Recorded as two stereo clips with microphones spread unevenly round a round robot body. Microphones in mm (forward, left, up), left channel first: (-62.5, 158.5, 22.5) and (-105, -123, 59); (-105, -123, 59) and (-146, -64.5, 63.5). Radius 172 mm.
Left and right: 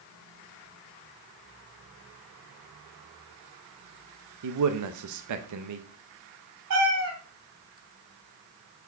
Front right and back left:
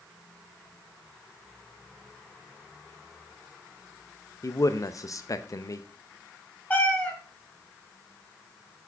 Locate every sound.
4.4 s a man speaking: 85° right, 0.7 m
6.7 s a cat meowing: 125° right, 3 m